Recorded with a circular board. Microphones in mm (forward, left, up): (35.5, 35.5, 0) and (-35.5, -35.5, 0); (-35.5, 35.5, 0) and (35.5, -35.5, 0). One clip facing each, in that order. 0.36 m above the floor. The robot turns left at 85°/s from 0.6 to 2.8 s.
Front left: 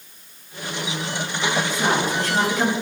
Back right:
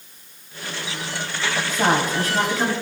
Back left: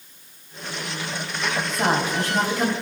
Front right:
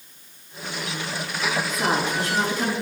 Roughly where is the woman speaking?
Behind.